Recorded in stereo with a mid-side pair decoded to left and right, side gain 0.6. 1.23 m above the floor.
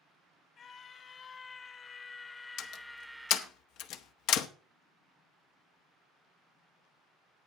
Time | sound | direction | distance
0.6 | a scream | 40° left | 1.7 m
2.6 | a door slam | 70° left | 1.2 m